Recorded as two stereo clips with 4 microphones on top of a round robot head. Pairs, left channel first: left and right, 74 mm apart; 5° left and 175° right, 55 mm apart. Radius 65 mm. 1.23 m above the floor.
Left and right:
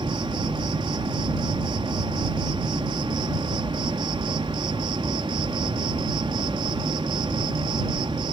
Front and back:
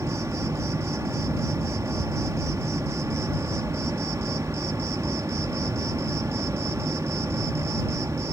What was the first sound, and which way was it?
An insect, 120° right.